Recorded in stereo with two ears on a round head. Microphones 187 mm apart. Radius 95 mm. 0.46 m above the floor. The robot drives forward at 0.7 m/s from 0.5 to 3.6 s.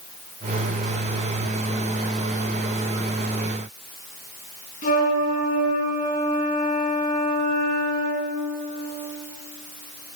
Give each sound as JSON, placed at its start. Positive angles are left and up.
{"t": 4.8, "sound": "a flute", "side_deg": 45, "distance_m": 3.5}